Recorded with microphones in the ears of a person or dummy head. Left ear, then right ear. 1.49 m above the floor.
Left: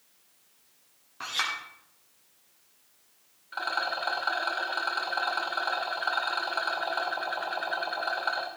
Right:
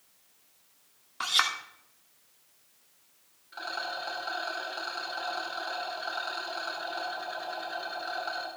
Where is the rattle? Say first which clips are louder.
Left 5 dB; 40° left (ahead or behind), 2.5 m.